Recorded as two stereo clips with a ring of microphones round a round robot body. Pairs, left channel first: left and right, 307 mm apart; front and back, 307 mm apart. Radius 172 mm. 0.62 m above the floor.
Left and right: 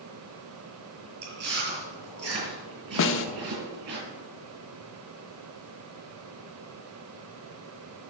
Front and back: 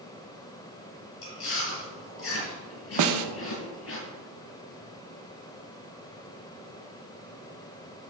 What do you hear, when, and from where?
1.2 s chewing: 45° right, 4.5 m
3.0 s a snare drum: 145° left, 0.6 m